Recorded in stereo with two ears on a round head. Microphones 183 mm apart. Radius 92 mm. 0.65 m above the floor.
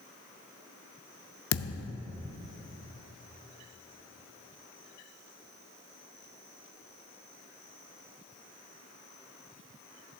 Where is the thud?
60° left (ahead or behind), 0.5 m.